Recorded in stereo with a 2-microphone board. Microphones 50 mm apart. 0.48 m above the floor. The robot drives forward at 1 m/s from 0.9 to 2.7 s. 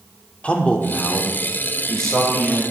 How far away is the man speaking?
About 0.8 m.